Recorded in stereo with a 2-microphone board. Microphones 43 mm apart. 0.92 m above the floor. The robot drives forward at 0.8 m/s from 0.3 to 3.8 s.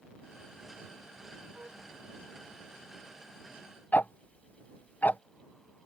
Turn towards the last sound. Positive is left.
turn(degrees=45)  # may be behind; listen again after turning